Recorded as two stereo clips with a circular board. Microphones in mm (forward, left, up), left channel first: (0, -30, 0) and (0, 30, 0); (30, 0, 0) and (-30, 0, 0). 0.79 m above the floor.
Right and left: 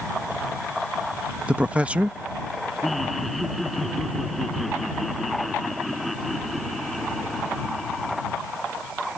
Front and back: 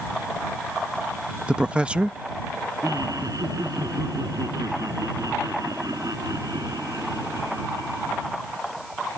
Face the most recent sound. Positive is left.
turn(degrees=180)